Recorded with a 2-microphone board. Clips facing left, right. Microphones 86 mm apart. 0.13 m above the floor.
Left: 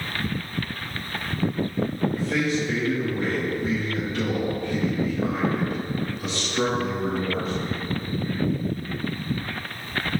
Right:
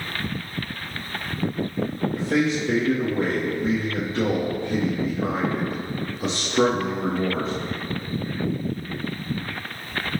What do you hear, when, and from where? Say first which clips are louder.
2.1 s a man speaking: right 5 dB; 35° right (ahead or behind), 4 m